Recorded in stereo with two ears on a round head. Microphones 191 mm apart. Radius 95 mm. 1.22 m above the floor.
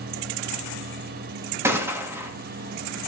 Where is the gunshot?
10° right (ahead or behind), 1.9 m.